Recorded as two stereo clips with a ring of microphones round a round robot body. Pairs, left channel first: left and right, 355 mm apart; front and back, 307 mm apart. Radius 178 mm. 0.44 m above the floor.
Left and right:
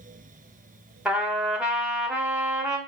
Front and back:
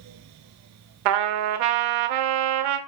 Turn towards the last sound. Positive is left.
turn(degrees=-175)